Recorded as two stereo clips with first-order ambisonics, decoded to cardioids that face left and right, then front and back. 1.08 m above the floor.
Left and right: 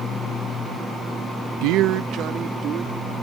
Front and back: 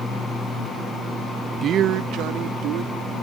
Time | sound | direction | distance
1.6 | a man speaking | 115° right | ?